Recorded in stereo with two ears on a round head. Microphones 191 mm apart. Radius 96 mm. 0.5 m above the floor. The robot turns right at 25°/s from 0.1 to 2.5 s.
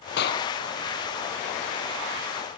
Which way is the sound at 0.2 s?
55° left (ahead or behind).